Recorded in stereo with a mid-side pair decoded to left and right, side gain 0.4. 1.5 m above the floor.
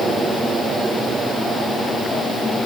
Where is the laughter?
I don't hear laughter.